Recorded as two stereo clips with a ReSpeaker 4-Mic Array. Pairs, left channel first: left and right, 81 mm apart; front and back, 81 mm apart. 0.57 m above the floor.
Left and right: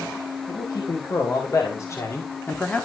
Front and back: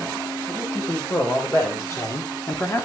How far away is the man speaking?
About 3.5 m.